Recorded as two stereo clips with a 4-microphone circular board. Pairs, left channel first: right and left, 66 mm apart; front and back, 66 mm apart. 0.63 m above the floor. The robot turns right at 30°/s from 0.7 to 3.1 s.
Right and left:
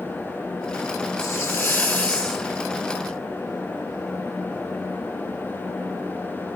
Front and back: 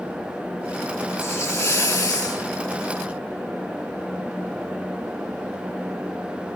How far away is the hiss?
About 1.4 m.